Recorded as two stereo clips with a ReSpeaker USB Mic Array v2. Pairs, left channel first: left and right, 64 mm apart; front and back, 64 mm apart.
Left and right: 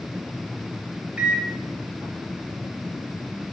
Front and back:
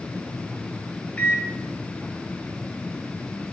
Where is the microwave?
40° right, 0.8 m.